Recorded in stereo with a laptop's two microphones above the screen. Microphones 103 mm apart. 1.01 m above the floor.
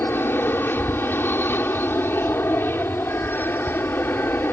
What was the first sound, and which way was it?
An aircraft, 20° left (ahead or behind).